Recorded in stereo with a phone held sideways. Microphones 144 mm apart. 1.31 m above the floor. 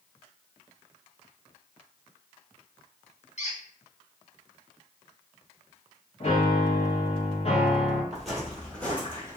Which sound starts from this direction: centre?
Footsteps, at 8.1 s.